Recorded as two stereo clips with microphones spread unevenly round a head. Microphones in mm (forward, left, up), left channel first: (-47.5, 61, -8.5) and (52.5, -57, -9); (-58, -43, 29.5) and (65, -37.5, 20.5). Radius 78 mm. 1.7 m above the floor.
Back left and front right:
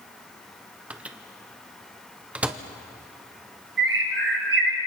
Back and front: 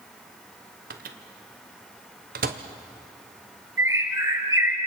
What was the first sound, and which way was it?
A microwave, 30° left.